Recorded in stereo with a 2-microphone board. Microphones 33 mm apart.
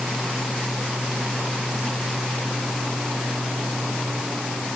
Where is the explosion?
I don't hear an explosion.